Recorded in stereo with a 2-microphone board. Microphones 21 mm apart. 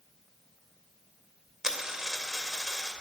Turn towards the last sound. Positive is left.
turn(degrees=-35)  # may be behind; listen again after turning